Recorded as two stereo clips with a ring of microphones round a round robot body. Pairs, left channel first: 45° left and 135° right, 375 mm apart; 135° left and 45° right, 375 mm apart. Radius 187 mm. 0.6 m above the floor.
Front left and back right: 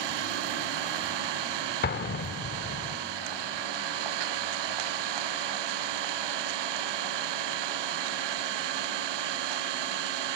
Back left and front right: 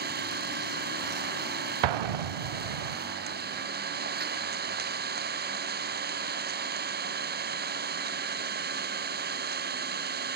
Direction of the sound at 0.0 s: 110° right.